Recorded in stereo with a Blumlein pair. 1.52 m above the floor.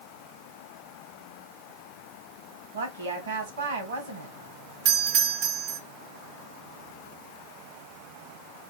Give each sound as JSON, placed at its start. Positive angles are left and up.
{"t": 2.7, "sound": "a woman speaking", "azimuth_deg": -65, "distance_m": 2.0}
{"t": 4.8, "sound": "a doorbell", "azimuth_deg": -45, "distance_m": 1.0}